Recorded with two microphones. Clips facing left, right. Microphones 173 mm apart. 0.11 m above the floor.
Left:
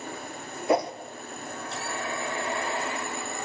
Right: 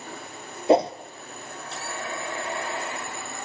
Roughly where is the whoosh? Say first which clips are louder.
Right 5 dB; right.